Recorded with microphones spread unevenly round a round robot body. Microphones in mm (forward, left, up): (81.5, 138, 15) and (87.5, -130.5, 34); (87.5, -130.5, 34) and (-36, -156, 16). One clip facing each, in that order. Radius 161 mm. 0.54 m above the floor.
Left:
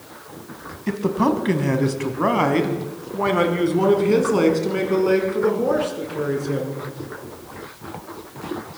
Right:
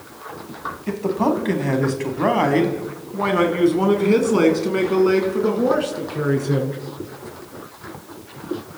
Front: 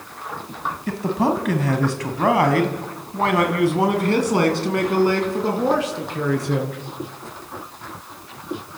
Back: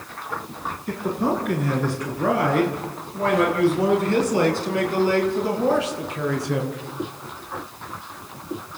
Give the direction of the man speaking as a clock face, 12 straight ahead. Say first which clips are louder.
Even, front 3 dB; 11 o'clock.